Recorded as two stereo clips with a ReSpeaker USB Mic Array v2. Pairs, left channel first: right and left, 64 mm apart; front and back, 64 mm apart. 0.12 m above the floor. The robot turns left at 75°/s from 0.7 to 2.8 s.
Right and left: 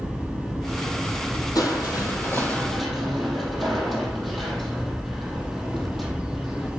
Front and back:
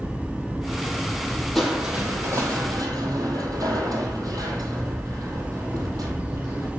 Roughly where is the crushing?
Right.